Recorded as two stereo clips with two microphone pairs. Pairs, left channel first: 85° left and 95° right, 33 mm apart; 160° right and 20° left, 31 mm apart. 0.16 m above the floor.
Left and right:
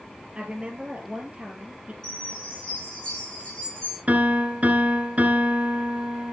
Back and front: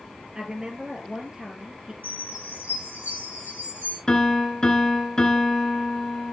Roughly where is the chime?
Ahead.